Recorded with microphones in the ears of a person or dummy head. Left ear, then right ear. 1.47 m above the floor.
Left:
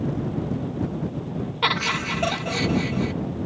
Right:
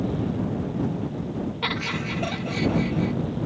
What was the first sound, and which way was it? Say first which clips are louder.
Laughter: left 6 dB; 35° left (ahead or behind).